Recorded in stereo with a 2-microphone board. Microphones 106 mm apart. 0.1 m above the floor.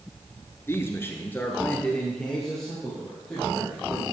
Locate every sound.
0.7 s a man speaking: 25° left (ahead or behind), 1.3 m; by 4.0 s centre (ahead or behind), 4.5 m